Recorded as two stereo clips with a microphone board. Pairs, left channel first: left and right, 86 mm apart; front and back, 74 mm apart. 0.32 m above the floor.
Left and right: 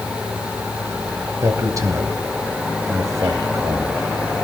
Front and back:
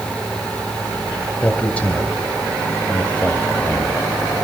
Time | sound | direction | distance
1.4 | a man speaking | 65° right | 1.8 m